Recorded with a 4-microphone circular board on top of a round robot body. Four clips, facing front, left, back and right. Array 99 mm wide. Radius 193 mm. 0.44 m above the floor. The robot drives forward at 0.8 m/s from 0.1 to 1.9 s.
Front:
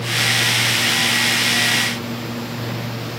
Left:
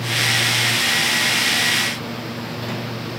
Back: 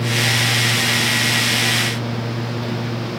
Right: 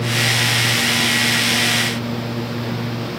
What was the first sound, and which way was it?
Only background noise.